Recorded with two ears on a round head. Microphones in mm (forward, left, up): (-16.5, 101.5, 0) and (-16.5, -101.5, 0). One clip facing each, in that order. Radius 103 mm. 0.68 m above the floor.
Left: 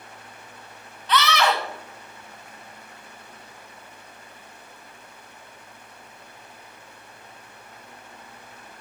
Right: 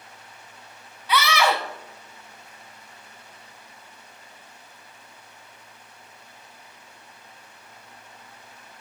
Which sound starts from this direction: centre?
A scream, at 1.1 s.